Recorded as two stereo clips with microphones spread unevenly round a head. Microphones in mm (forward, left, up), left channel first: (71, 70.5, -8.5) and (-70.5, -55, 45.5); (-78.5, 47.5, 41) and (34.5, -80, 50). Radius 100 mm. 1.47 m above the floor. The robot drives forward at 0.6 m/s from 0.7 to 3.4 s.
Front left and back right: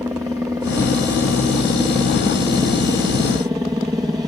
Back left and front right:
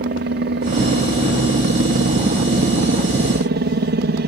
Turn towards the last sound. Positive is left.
turn(degrees=-60)